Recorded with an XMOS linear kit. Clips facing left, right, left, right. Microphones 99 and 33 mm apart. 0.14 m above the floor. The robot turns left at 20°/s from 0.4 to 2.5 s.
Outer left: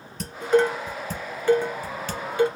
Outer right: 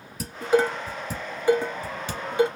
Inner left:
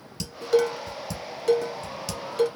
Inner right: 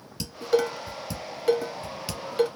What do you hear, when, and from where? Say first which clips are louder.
0.2 s dishes clattering: outer left 2 dB, inner left 2 dB; 5° right (ahead or behind), 1.0 m; by 2.5 s 20° right (ahead or behind), 1.0 m